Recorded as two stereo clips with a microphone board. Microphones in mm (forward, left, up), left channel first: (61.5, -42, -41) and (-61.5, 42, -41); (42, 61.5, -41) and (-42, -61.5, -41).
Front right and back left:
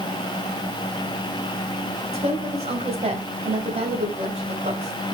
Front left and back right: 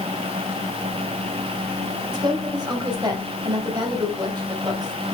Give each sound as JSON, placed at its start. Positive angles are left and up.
{"t": 2.1, "sound": "a woman speaking", "azimuth_deg": 180, "distance_m": 2.0}